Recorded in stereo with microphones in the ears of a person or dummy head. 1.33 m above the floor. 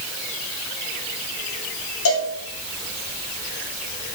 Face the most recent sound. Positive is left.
turn(degrees=80)